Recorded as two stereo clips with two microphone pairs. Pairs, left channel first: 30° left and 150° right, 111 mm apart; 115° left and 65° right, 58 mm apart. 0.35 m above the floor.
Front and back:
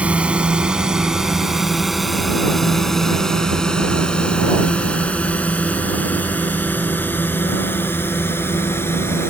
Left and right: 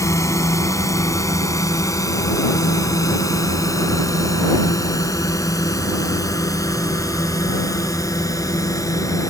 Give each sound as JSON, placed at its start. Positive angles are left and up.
{"t": 0.0, "sound": "a drone", "azimuth_deg": 135}